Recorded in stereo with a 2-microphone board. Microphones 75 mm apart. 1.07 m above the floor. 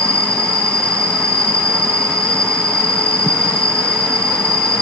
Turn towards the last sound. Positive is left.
turn(degrees=15)  # may be behind; listen again after turning